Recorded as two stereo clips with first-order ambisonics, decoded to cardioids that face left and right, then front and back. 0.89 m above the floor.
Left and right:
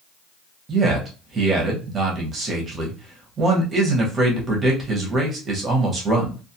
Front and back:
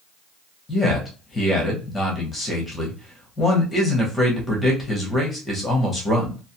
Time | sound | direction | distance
0.7 | a man speaking | 50° right | 0.8 m